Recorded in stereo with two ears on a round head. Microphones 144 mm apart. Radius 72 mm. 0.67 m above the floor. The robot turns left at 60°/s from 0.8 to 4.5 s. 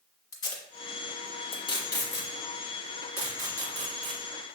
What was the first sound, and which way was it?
Tape being pulled, 25° left (ahead or behind).